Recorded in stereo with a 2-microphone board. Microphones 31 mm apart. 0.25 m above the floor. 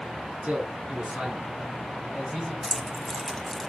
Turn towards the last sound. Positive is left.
turn(degrees=0)  # may be behind; listen again after turning